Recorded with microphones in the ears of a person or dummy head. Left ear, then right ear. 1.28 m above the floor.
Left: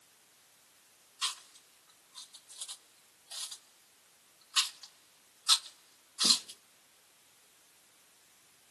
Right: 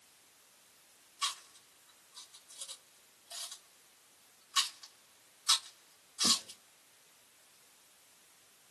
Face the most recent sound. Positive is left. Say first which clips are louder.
# even
turn(degrees=5)  # may be behind; listen again after turning